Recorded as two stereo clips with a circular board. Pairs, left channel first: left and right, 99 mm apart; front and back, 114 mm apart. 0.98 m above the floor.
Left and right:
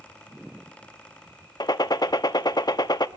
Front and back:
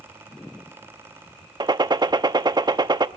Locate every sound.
1.6 s a gunshot: 130° left, 0.6 m